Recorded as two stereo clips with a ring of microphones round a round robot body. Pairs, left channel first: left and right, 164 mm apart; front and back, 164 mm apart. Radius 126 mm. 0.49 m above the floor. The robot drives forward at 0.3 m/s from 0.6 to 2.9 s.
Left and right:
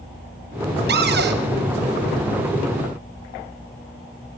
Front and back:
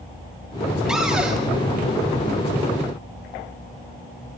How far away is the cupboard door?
About 3 m.